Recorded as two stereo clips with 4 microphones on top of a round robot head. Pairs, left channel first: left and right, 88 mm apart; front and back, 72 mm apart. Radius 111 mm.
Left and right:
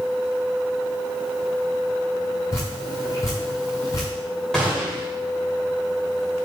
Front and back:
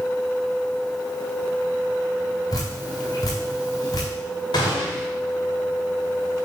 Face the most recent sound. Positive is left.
turn(degrees=5)